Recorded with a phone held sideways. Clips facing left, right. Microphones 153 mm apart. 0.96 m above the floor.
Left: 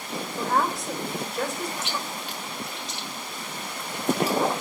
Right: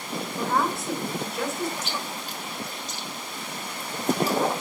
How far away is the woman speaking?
About 3 m.